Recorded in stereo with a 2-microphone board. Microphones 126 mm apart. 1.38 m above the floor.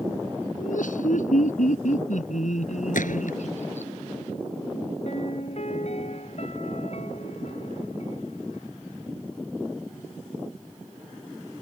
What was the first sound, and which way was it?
Laughter, 75° left (ahead or behind).